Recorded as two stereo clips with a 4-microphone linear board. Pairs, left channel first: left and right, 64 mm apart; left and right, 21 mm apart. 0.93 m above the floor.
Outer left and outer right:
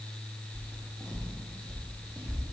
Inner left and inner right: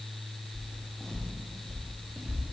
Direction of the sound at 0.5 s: 40° left (ahead or behind).